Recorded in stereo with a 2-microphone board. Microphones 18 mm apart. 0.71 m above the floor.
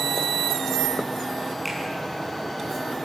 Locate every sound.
1.6 s a finger snap: 5° right (ahead or behind), 7 m